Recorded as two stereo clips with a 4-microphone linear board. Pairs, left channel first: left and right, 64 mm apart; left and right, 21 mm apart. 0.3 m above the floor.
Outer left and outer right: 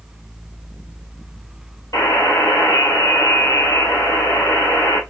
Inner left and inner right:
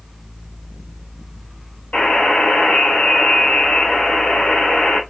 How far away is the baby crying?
I don't hear a baby crying.